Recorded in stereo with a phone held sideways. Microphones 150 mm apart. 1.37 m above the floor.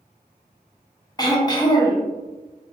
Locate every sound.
1.2 s throat clearing: 25° left (ahead or behind), 0.8 m